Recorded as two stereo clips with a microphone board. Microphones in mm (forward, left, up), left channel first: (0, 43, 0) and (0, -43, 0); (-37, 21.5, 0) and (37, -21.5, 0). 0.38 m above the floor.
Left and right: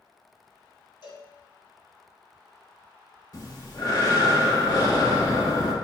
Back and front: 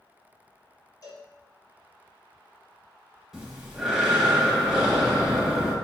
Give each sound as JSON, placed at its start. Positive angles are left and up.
{"t": 1.0, "sound": "a cowbell", "azimuth_deg": 110, "distance_m": 1.2}
{"t": 3.3, "sound": "breathing", "azimuth_deg": 55, "distance_m": 0.8}